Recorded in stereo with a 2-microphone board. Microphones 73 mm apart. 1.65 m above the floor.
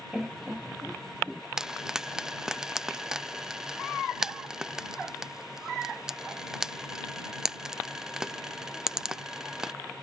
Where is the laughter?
10° right (ahead or behind); by 1.4 s 5° right (ahead or behind).